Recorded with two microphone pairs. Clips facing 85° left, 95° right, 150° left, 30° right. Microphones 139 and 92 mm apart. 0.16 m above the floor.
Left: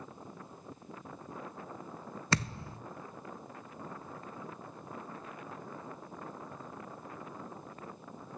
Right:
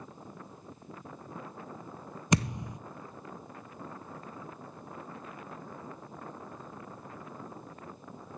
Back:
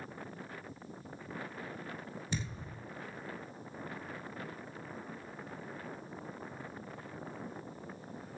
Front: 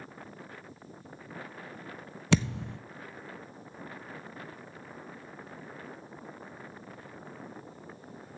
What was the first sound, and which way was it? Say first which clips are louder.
A thud: right 6 dB, front 15 dB; 20° right.